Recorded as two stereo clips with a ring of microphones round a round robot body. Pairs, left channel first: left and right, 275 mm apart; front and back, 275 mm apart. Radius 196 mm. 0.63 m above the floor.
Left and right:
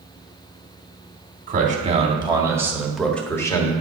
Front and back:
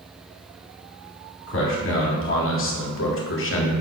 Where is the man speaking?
35° right, 1.9 m; by 3.7 s 20° left, 1.7 m.